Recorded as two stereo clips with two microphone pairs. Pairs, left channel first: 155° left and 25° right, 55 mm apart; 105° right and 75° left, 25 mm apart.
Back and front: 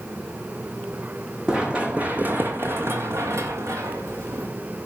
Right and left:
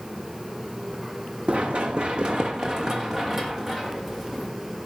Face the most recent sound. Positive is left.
turn(degrees=-10)